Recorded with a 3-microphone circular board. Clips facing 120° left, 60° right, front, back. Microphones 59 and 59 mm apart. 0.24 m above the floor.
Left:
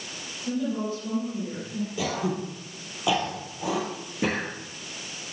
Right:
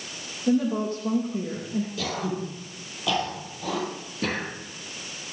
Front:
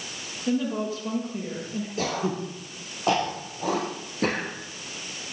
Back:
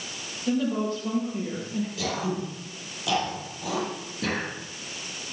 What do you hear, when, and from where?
0.5 s a woman speaking: 85° right, 7 m
2.0 s throat clearing: 45° left, 4 m